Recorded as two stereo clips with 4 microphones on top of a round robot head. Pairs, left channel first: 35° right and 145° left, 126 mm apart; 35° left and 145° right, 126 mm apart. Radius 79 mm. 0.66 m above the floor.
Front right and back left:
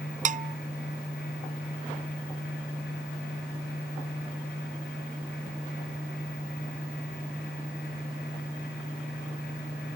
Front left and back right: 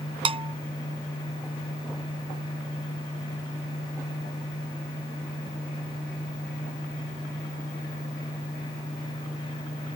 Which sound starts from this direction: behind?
A bell, at 0.2 s.